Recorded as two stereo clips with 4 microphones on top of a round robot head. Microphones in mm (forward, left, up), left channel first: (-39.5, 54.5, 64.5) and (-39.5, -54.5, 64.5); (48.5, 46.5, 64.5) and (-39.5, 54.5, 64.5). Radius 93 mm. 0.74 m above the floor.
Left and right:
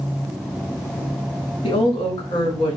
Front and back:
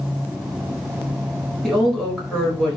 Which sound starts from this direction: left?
A woman speaking, at 1.6 s.